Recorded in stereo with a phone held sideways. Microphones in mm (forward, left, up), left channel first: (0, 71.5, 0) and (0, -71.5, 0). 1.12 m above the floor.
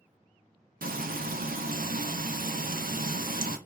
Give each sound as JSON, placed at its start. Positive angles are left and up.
{"t": 0.8, "sound": "frying", "side_deg": -80, "distance_m": 0.6}